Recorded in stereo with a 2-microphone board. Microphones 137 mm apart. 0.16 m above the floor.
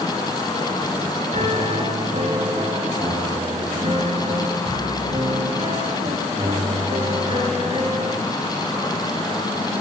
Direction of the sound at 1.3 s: 55° right (ahead or behind).